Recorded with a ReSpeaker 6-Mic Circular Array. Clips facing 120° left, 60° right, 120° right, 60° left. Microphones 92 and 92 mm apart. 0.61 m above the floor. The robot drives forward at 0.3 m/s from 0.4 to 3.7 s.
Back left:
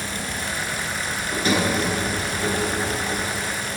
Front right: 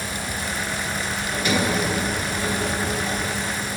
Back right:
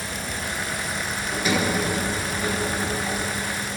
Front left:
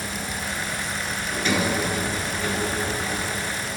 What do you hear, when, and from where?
1.3 s a sliding door: 160° left, 1.6 m; by 3.2 s 165° left, 2.0 m